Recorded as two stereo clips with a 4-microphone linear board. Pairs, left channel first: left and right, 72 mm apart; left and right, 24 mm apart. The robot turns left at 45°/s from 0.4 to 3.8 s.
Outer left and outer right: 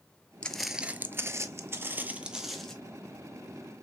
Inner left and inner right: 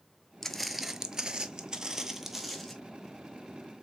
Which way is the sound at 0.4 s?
15° left (ahead or behind).